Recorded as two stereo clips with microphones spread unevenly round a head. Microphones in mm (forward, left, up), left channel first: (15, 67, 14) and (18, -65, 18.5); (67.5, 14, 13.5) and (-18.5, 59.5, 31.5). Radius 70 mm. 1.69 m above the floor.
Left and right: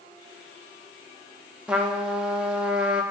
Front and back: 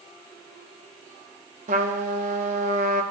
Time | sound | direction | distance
1.7 | a trumpet | 170° right | 0.5 m